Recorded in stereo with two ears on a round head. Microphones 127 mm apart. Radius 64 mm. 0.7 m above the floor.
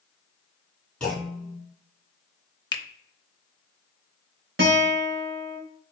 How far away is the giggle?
No giggle in this recording.